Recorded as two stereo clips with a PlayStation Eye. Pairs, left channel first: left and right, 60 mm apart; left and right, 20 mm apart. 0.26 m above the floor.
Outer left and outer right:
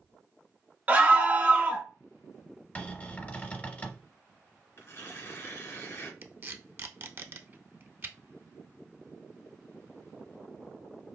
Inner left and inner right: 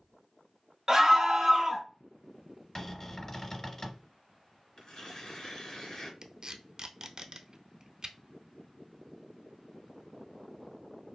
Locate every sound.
0.9 s a scream: 30° right (ahead or behind), 1.0 m
2.8 s a cupboard door: 25° left (ahead or behind), 0.6 m
4.8 s tearing paper: 45° left (ahead or behind), 1.1 m
6.2 s tape being pulled: 40° right (ahead or behind), 0.5 m